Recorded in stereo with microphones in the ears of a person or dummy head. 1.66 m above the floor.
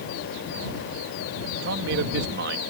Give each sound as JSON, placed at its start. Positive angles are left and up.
{"t": 1.6, "sound": "a man speaking", "side_deg": -65}